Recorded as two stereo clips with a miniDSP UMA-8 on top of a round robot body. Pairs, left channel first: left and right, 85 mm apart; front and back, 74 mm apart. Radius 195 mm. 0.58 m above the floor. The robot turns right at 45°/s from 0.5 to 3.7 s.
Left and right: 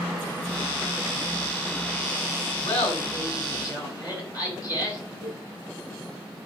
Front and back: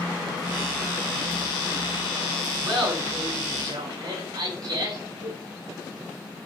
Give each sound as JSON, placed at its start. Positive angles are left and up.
{"t": 2.6, "sound": "laughter", "azimuth_deg": 90, "distance_m": 8.5}
{"t": 5.2, "sound": "a cowbell", "azimuth_deg": 115, "distance_m": 4.5}